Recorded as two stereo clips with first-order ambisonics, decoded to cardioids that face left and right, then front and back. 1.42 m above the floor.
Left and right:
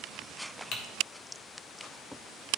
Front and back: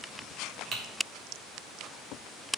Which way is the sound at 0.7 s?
125° left.